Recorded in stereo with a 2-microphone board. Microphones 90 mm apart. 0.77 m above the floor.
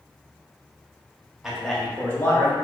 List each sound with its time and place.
1.4 s a man speaking: 5° right (ahead or behind), 0.9 m; by 2.5 s 30° left (ahead or behind), 1.2 m